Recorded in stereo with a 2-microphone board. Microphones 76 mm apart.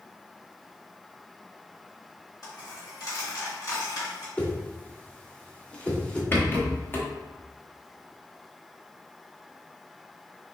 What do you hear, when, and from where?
2.4 s a dropped coin: 50° left (ahead or behind), 2.0 m
4.4 s a whoosh: 15° left (ahead or behind), 0.9 m
6.3 s a rattle: 30° left (ahead or behind), 0.9 m